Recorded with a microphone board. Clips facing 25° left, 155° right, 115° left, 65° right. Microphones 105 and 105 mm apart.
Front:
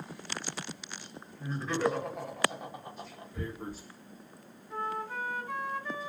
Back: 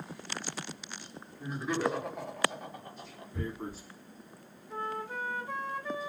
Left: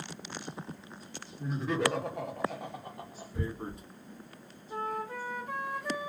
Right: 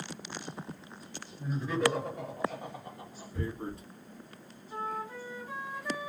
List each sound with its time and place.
1.4 s laughter: 135° left, 1.1 m; by 3.2 s 85° left, 1.1 m
3.3 s tearing paper: 175° left, 1.6 m
4.7 s a flute: 130° left, 1.4 m